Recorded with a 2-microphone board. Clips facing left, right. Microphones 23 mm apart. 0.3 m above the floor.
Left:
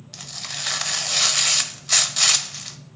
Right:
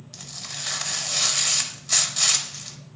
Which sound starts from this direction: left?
Tearing paper, at 0.1 s.